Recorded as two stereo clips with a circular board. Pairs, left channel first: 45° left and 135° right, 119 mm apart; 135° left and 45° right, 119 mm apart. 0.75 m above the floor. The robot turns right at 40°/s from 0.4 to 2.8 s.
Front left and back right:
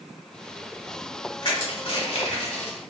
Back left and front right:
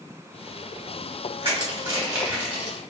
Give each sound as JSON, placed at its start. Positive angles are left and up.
{"t": 1.4, "sound": "crushing", "azimuth_deg": -5, "distance_m": 1.3}